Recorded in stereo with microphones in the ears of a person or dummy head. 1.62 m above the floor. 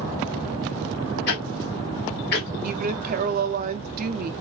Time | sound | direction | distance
1.3 | ticking | 55° left (ahead or behind) | 1.7 m
2.6 | a woman speaking | 45° right (ahead or behind) | 0.5 m